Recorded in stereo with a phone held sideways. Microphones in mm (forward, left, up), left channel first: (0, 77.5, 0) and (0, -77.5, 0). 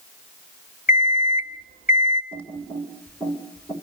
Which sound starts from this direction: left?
An alarm clock, at 0.9 s.